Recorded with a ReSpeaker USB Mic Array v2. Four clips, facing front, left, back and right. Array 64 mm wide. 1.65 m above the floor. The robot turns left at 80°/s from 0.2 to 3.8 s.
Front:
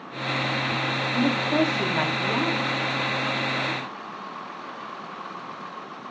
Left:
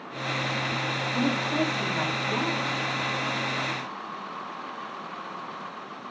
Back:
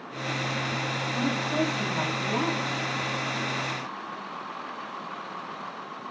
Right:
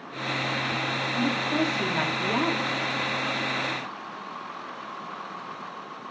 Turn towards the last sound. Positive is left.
turn(degrees=180)